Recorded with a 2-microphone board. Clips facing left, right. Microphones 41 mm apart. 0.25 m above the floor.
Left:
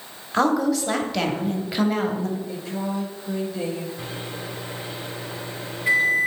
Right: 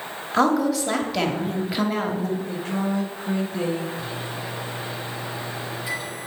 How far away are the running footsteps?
I don't hear running footsteps.